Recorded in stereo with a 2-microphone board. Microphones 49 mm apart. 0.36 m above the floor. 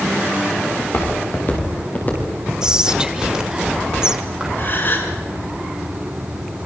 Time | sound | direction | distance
0.8 | footsteps | 45° left (ahead or behind) | 6.5 m
2.6 | whispering | 15° right (ahead or behind) | 1.5 m
4.6 | a gasp | 40° left (ahead or behind) | 3.5 m